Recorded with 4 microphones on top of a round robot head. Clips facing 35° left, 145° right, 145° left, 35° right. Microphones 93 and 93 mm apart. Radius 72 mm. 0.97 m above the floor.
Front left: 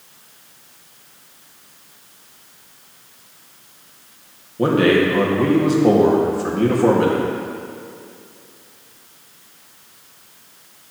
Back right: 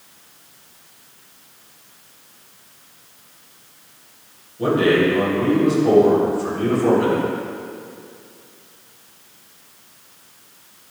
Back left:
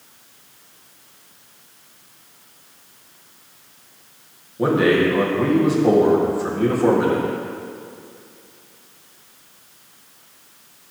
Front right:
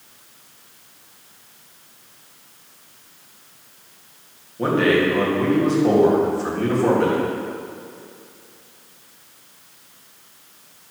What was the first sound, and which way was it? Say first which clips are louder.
A man speaking: front left 1 dB, back left 1 dB; 65° left.